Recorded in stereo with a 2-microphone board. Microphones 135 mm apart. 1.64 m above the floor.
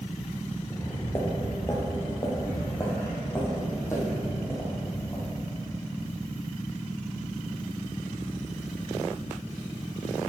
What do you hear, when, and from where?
0.7 s footsteps: 25° left (ahead or behind), 1.8 m; by 5.6 s 20° left (ahead or behind), 5.5 m